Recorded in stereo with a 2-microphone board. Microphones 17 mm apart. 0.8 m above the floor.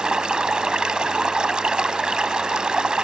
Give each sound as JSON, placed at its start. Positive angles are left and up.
{"t": 0.0, "sound": "running water", "side_deg": -70}